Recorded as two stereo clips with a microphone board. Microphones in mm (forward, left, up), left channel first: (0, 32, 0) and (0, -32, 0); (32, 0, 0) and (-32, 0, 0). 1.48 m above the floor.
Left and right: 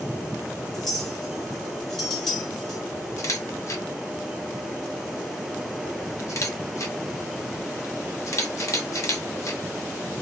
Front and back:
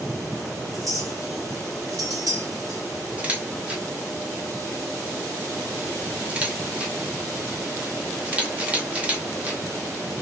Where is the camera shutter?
115° left, 0.9 m.